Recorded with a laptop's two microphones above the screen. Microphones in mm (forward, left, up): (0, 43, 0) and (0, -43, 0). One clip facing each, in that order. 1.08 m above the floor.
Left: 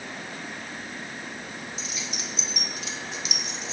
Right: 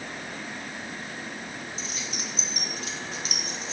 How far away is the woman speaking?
I don't hear a woman speaking.